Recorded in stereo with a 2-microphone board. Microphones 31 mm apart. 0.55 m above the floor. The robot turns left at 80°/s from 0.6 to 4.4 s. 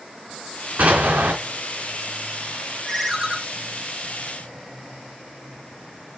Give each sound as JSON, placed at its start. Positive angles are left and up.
{"t": 0.8, "sound": "an explosion", "azimuth_deg": -45, "distance_m": 3.5}
{"t": 2.9, "sound": "a ringtone", "azimuth_deg": 15, "distance_m": 1.6}